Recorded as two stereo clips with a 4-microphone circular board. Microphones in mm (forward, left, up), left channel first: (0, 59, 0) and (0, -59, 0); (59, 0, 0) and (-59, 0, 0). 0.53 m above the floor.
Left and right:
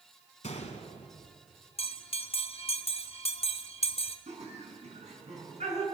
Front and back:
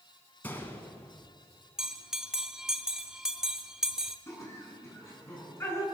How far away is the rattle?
I don't hear a rattle.